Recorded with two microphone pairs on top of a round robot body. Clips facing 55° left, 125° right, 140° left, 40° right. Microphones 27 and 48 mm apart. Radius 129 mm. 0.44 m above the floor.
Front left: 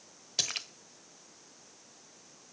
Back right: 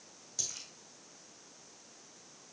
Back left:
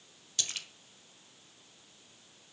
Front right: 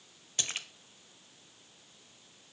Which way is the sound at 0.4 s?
20° left.